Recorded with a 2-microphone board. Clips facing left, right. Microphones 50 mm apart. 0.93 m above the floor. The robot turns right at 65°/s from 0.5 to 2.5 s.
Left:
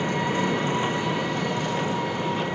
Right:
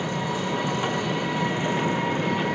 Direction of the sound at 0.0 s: 130° left.